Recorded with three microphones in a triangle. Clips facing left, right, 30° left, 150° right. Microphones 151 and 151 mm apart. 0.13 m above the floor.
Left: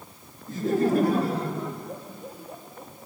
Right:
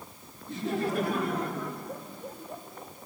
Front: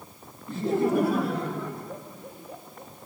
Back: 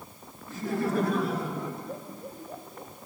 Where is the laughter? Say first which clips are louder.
Left 7 dB, front 5 dB; 75° left, 1.8 m; by 2.9 s straight behind, 3 m.